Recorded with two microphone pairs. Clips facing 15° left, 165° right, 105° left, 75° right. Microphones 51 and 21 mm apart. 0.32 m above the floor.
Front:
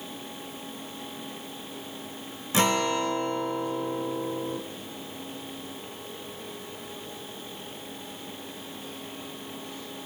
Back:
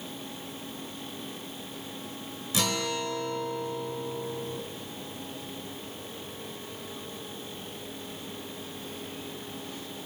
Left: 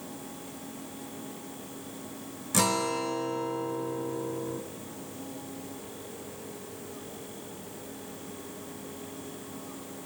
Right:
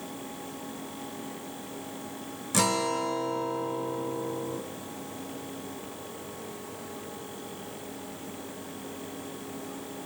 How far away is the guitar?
About 0.5 m.